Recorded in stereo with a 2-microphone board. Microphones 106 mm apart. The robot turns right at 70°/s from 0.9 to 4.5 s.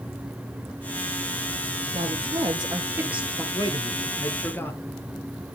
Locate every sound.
1.9 s a woman speaking: 100° right, 2.5 m; by 3.4 s 5° left, 2.5 m
3.5 s a man speaking: 85° left, 1.7 m; by 4.8 s 150° left, 1.7 m